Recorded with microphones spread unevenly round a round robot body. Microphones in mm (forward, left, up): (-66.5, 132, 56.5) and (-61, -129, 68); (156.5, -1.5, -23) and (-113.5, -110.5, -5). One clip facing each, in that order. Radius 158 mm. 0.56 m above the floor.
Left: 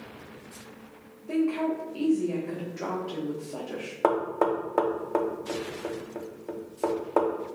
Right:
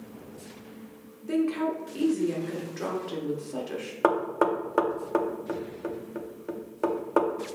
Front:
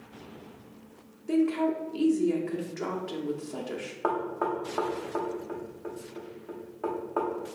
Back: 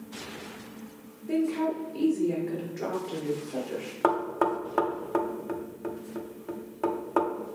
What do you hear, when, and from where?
1.3 s a woman speaking: 35° right, 0.9 m
4.0 s knocking: 160° right, 0.5 m